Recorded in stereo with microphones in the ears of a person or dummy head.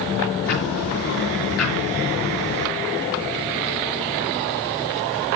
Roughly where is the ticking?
Left.